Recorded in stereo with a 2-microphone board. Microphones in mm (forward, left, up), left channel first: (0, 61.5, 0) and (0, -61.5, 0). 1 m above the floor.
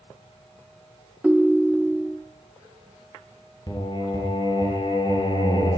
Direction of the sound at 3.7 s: 35° left (ahead or behind).